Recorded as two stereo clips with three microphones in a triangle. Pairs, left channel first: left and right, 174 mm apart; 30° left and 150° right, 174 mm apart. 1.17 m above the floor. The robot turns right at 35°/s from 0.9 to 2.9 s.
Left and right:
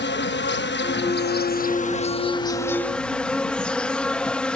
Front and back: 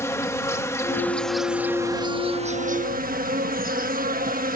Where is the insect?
105° left; by 4.6 s 175° left.